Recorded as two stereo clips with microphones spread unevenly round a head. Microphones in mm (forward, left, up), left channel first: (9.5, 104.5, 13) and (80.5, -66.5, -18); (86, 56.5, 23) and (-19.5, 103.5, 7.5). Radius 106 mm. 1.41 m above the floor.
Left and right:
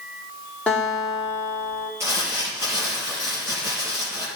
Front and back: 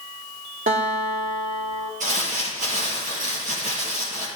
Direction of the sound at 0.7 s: 165° right.